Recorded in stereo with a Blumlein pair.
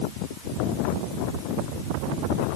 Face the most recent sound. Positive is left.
No sound to turn to.